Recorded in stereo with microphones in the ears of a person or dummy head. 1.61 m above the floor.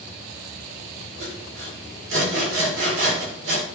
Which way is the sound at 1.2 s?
75° right (ahead or behind).